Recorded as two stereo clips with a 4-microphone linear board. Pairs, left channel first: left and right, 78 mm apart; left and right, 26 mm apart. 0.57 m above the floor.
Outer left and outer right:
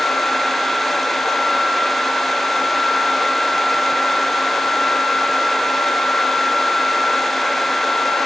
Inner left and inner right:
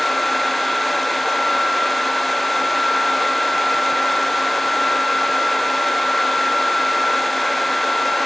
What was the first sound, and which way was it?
Only background noise.